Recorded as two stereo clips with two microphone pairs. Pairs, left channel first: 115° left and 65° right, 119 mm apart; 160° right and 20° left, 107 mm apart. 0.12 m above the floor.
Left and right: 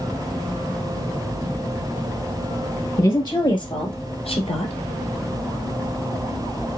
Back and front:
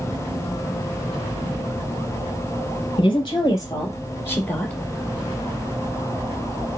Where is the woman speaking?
170° left, 2.5 m; by 4.7 s 125° left, 2 m.